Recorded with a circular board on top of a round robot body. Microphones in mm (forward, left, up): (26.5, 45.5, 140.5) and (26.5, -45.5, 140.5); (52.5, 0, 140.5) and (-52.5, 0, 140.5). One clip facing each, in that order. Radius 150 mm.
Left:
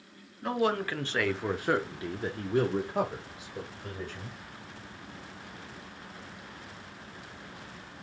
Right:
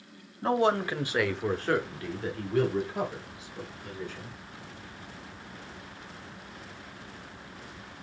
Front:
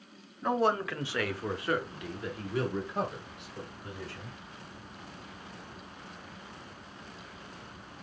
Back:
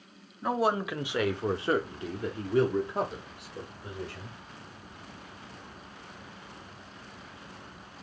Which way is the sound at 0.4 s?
95° right.